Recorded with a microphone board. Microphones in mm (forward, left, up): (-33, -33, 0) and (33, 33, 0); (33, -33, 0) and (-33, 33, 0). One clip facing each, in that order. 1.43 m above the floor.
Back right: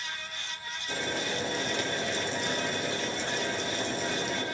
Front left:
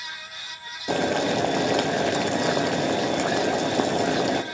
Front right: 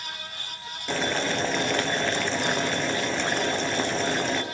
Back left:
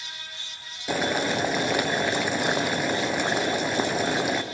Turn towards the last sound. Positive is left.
turn(degrees=55)